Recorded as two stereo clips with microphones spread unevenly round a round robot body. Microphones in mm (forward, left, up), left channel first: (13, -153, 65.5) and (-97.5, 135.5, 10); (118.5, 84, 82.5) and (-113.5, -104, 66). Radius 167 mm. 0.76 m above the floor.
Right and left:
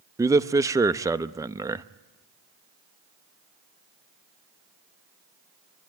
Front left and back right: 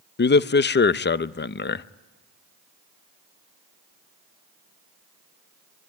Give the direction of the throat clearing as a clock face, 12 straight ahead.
No throat clearing in this recording.